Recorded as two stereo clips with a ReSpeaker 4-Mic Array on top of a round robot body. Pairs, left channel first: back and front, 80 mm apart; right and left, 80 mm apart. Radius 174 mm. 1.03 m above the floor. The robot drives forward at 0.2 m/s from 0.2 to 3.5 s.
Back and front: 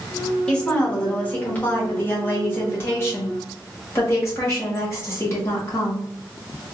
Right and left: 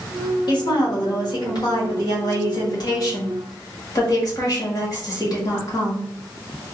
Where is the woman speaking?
105° right, 1.3 m; by 6.0 s 125° right, 1.6 m.